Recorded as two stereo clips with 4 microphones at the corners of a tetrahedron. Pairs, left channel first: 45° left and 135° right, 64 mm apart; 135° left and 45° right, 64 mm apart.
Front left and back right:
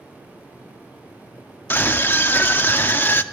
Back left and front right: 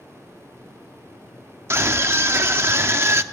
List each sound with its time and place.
1.7 s a scream: 5° right, 0.9 m